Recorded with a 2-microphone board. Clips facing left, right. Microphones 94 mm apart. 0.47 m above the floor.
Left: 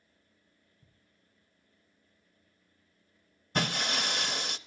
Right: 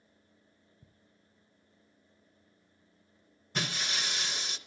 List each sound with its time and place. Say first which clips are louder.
0.8 s ticking: right 5 dB; 45° right (ahead or behind), 3 m
3.5 s breaking glass: left 5 dB; 55° left (ahead or behind), 0.6 m